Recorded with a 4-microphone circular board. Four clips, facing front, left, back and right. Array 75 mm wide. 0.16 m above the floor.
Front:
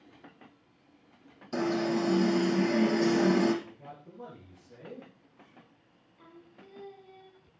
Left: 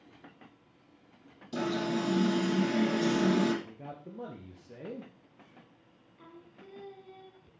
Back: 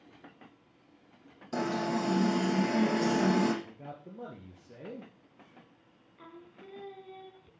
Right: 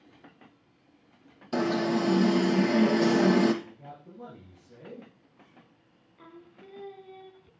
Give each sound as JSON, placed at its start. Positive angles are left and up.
{"t": 1.5, "sound": "an alarm", "azimuth_deg": -95, "distance_m": 3.5}
{"t": 3.6, "sound": "a man speaking", "azimuth_deg": 120, "distance_m": 3.0}
{"t": 6.2, "sound": "singing", "azimuth_deg": -145, "distance_m": 0.7}